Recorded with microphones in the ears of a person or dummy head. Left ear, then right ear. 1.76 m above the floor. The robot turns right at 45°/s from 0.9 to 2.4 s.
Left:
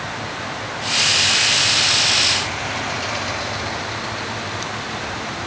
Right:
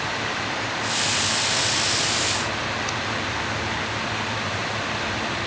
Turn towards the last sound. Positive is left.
No sound to turn to.